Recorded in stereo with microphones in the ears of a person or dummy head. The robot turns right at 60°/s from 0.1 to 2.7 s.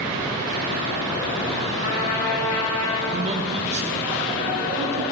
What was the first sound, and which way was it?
A trumpet, 35° left.